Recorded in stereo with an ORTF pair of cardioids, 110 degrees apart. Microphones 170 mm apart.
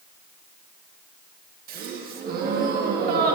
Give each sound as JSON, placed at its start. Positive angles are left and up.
{"t": 1.7, "sound": "a gasp", "azimuth_deg": -65, "distance_m": 1.3}